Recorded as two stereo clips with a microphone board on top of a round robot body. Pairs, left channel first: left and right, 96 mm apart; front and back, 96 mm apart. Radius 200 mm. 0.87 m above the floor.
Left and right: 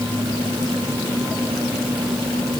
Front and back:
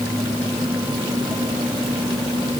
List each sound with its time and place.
Only background noise.